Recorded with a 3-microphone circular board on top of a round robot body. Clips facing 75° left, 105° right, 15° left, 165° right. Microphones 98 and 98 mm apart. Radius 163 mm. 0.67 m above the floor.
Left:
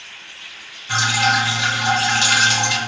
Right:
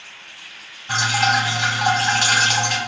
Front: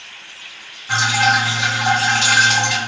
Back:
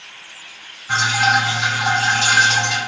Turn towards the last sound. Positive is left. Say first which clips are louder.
# even, even
turn(degrees=-70)